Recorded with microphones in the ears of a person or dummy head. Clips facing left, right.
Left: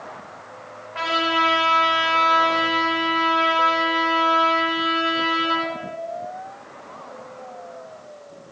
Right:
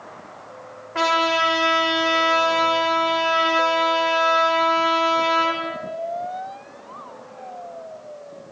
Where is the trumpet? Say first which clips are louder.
Right 3 dB; 55° right (ahead or behind), 6.5 m.